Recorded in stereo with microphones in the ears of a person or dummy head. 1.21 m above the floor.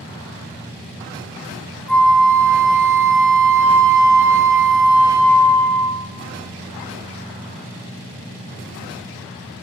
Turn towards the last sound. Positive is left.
turn(degrees=5)  # may be behind; listen again after turning